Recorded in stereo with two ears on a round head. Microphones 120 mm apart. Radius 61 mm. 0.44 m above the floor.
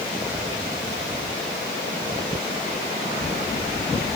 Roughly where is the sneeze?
I don't hear a sneeze.